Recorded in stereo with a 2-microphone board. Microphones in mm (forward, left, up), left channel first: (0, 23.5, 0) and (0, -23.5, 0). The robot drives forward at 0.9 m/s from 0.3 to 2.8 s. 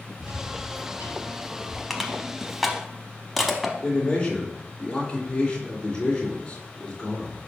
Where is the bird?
70° right (ahead or behind), 2.5 m; by 1.8 s 55° right (ahead or behind), 2.5 m.